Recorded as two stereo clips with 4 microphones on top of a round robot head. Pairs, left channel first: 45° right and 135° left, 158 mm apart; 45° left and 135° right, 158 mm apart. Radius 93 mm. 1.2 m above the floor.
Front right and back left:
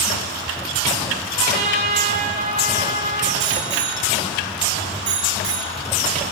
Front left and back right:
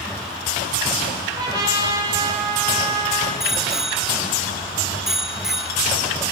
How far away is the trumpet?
About 8 m.